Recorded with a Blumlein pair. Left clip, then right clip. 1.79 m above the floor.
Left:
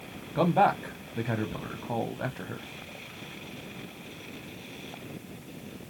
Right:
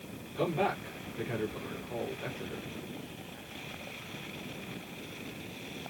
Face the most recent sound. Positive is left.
turn(degrees=45)